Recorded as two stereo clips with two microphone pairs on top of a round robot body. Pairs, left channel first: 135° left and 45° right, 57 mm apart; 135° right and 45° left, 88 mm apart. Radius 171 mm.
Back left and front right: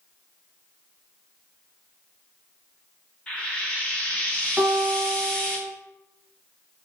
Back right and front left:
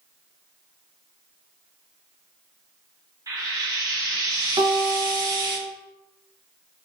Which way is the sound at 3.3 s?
65° left.